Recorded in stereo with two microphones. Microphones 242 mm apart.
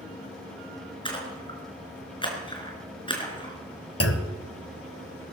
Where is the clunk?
70° left (ahead or behind), 1.2 m.